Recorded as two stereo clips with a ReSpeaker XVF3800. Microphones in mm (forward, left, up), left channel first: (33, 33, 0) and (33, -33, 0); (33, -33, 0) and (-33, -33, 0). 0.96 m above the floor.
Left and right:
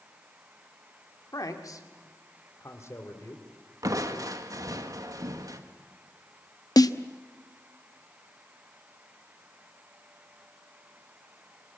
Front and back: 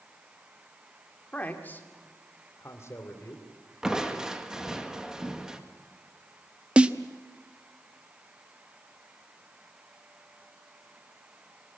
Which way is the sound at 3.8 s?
100° right.